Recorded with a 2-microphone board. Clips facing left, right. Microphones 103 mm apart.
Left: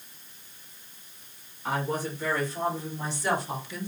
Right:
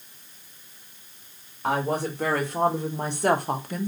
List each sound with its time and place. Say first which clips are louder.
1.6 s a woman speaking: right 4 dB; 70° right (ahead or behind), 2 m; by 3.9 s 45° right (ahead or behind), 0.9 m